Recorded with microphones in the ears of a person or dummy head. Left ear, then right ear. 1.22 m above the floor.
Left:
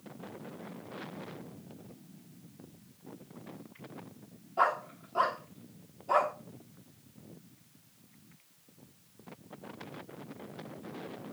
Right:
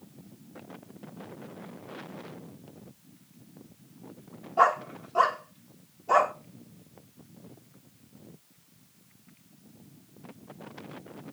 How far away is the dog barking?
About 1.2 m.